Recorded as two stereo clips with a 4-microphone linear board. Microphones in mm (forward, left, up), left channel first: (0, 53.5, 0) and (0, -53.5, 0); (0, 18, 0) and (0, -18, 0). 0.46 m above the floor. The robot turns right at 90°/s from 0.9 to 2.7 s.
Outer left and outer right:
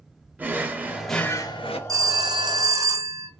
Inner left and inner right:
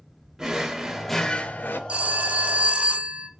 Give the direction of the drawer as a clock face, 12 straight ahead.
1 o'clock.